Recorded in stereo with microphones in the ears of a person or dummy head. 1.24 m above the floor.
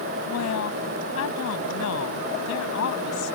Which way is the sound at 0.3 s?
80° left.